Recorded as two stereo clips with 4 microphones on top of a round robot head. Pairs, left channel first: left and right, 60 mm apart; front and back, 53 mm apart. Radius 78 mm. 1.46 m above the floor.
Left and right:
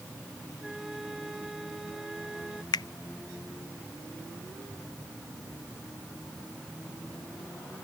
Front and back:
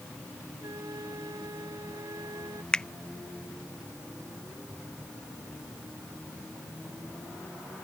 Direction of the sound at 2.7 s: 75° left.